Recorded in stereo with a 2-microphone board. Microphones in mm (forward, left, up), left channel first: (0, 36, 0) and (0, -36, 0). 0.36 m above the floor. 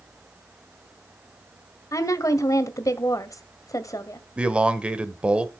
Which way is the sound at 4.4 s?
15° right (ahead or behind).